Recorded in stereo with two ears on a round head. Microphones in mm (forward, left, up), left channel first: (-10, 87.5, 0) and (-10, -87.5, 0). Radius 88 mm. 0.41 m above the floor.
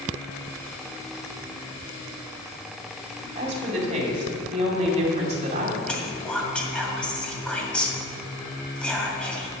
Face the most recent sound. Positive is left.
turn(degrees=5)  # may be behind; listen again after turning